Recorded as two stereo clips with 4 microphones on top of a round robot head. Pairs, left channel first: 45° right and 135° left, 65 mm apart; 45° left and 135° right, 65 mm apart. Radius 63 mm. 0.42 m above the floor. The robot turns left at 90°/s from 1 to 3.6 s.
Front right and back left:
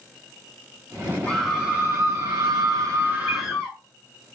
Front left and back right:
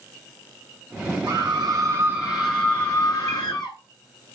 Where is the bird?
80° left, 3 m; by 3.4 s 75° left, 3 m.